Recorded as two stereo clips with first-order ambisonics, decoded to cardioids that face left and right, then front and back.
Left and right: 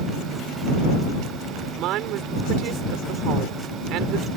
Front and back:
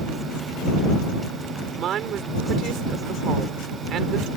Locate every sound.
1.8 s a woman speaking: 125° right